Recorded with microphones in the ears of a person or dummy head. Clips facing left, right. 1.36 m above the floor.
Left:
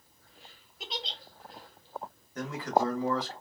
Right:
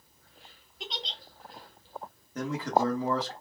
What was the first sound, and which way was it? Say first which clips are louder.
A giggle: left 1 dB; 10° left (ahead or behind).